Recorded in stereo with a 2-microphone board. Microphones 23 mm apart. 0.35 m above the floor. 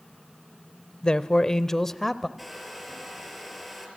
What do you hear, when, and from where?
1.0 s a man speaking: 35° left (ahead or behind), 1.0 m; by 2.3 s 5° left (ahead or behind), 1.2 m
2.4 s a hair dryer: centre (ahead or behind), 6.5 m